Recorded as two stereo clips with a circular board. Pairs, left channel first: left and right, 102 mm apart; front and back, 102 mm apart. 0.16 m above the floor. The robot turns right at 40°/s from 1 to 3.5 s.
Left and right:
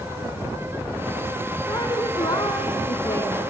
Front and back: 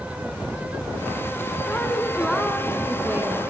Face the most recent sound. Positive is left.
turn(degrees=140)